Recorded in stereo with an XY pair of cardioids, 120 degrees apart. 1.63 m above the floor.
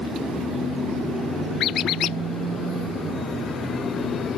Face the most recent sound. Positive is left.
turn(degrees=65)